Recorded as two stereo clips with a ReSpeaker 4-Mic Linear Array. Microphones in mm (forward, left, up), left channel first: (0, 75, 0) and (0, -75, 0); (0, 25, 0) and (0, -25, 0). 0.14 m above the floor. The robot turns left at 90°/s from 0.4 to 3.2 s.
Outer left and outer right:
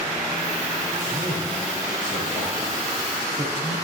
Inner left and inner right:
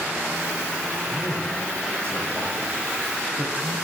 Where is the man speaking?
50° right (ahead or behind), 3 m; by 3.7 s 40° left (ahead or behind), 3 m.